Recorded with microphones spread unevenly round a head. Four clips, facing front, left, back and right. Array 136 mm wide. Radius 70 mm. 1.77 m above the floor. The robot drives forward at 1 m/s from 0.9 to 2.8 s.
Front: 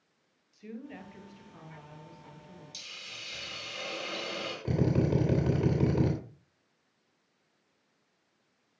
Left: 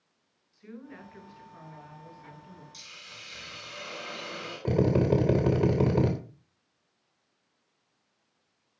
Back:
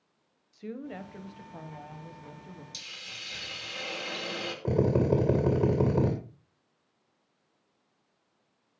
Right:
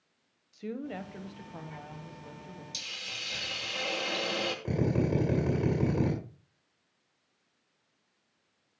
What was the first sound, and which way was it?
A woman speaking, 130° right.